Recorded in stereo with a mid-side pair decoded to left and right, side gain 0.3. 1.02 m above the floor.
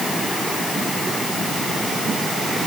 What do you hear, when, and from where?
Only background noise.